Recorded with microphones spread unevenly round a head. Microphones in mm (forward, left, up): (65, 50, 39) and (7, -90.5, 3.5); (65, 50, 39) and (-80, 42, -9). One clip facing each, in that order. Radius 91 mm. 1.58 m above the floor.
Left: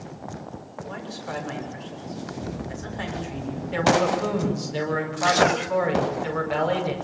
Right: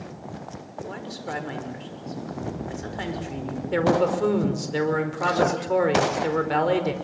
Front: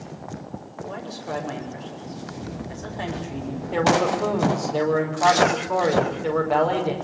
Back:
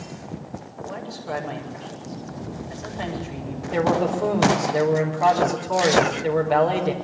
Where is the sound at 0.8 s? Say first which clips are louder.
Right 1 dB, even; 75° right, 7 m.